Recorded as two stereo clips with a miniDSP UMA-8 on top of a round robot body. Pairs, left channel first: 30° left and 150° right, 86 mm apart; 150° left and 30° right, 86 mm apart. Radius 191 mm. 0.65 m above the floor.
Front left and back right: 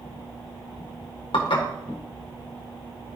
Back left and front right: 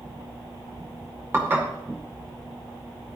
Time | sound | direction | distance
1.3 | dishes clattering | 35° left | 2 m